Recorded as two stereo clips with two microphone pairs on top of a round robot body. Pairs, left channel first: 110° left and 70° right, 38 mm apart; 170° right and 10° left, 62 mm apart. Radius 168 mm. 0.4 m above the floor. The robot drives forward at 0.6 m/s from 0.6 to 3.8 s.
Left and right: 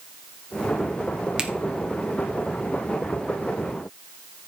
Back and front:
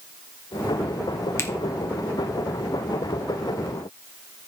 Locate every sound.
1.4 s a finger snap: 135° right, 1.8 m